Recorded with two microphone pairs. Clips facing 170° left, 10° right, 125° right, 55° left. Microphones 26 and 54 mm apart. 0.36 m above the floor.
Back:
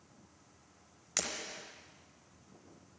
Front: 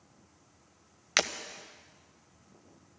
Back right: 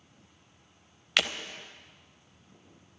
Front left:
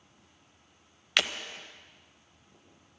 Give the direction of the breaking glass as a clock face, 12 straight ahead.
1 o'clock.